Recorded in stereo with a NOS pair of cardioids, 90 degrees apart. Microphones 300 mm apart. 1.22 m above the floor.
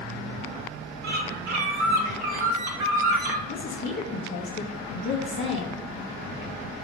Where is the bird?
70° right, 1.8 m.